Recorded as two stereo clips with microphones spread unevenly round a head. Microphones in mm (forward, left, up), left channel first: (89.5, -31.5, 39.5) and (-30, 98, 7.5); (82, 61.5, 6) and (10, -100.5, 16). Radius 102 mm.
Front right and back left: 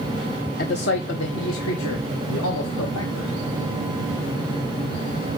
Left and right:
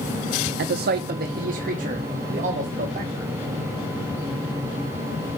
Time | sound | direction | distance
0.6 | a man speaking | 90° right | 0.5 m